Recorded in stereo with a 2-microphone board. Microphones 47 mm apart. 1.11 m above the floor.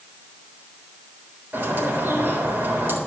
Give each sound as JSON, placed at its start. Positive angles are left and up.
{"t": 1.5, "sound": "a bird", "side_deg": -45, "distance_m": 3.5}